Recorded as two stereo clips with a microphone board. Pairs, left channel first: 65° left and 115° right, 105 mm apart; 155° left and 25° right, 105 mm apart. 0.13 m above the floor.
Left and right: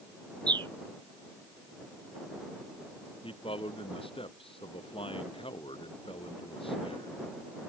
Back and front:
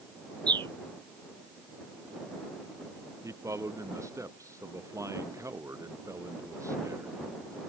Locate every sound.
0.5 s a bird: 70° right
3.2 s a man speaking: 40° left